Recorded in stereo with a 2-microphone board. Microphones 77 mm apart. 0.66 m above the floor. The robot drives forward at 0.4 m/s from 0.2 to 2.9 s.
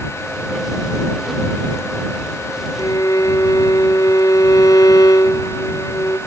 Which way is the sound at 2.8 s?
55° left (ahead or behind).